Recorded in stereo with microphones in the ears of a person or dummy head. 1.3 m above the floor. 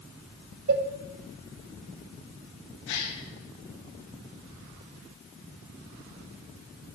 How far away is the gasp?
About 2 m.